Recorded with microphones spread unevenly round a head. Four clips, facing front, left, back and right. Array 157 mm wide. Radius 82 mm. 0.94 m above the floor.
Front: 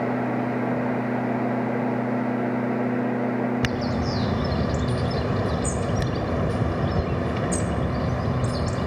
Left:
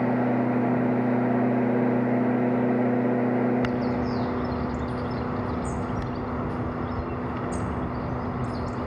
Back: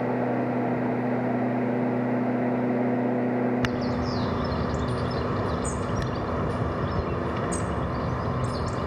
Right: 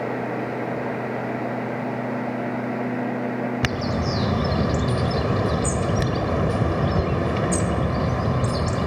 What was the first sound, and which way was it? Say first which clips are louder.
A bird: even, front 1 dB; 90° right.